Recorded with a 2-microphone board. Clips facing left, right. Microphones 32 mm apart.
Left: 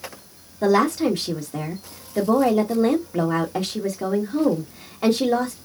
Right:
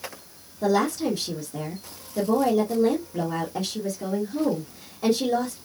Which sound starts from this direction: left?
A woman speaking, at 0.6 s.